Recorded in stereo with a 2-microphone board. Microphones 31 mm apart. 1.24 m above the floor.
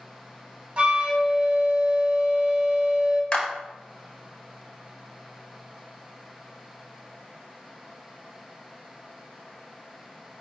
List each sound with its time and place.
0.8 s a flute: 50° right (ahead or behind), 0.9 m
3.3 s a clap: 30° left (ahead or behind), 0.8 m